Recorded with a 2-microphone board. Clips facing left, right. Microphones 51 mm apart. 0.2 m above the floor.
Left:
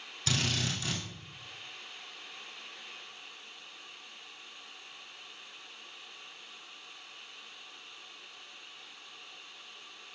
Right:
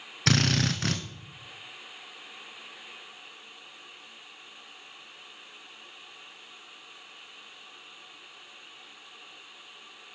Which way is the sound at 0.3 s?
70° right (ahead or behind).